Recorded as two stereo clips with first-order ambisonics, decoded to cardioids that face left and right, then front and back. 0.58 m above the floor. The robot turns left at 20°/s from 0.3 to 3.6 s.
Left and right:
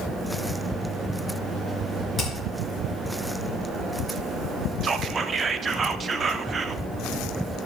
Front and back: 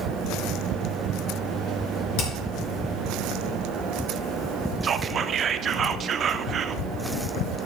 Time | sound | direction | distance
2.2 | hammering | 10° left | 4 m
4.8 | whispering | 140° right | 0.6 m